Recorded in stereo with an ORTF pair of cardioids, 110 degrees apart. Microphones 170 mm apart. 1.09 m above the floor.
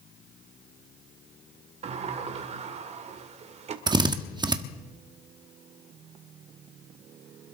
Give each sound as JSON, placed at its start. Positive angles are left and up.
{"t": 1.8, "sound": "a sliding door", "azimuth_deg": -40, "distance_m": 2.0}
{"t": 3.9, "sound": "a drill", "azimuth_deg": -25, "distance_m": 1.3}